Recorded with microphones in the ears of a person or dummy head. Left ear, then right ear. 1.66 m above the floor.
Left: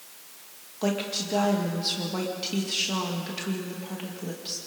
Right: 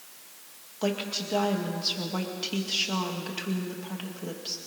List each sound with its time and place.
0.8 s a woman speaking: 15° right (ahead or behind), 2 m